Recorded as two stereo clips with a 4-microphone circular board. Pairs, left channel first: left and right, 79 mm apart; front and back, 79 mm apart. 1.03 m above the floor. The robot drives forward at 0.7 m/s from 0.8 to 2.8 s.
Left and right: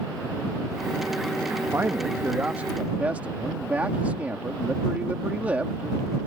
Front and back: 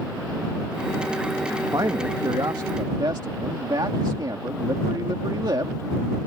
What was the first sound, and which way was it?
A man speaking, 145° right.